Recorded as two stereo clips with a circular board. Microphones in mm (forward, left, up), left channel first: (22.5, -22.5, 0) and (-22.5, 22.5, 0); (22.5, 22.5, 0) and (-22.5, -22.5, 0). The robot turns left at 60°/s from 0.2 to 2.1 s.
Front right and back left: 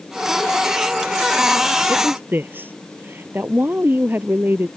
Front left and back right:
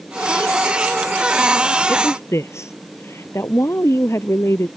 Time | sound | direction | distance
1.9 | a woman speaking | 95° left | ?